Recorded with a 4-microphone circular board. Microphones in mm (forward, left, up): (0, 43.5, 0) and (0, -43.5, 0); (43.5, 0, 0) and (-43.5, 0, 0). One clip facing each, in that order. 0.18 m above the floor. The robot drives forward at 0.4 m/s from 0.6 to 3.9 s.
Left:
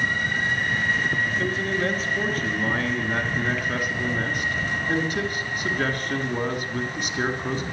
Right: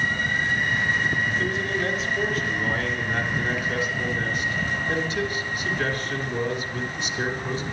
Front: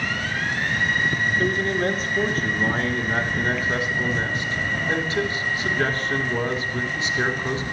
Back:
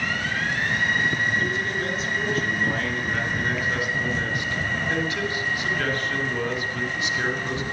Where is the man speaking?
40° left, 3 m; by 7.6 s 60° left, 2.5 m.